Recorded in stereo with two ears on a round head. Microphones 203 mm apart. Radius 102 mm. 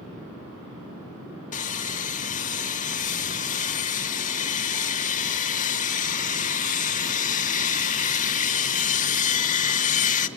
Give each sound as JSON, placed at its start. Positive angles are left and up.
{"t": 1.5, "sound": "sawing", "side_deg": 35, "distance_m": 1.0}